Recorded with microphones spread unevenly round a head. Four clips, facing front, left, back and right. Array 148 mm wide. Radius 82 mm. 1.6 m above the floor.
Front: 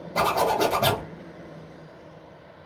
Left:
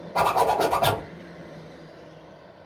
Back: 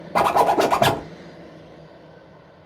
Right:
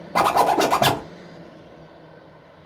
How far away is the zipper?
About 0.6 m.